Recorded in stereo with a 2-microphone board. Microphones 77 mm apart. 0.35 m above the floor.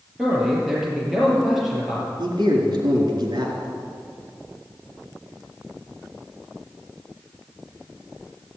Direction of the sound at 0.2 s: Centre (ahead or behind).